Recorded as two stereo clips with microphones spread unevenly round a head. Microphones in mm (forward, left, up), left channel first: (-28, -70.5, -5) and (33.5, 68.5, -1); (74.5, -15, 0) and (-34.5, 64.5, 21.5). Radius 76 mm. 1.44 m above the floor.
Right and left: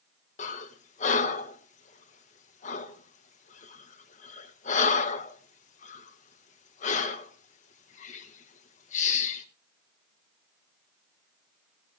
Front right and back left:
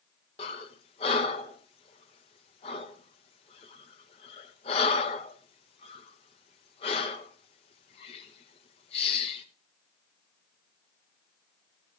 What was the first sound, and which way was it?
Breathing, 90° right.